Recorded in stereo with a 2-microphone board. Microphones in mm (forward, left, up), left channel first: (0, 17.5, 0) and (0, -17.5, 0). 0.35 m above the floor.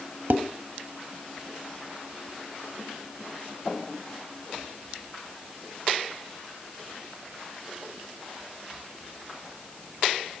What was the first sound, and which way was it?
Dishes clattering, 60° right (ahead or behind).